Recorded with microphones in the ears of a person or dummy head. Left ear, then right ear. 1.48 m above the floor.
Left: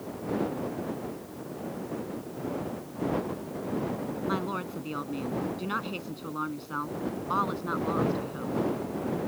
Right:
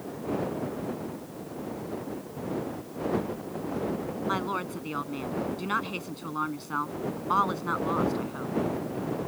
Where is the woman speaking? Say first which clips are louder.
Right 3 dB; 35° right (ahead or behind).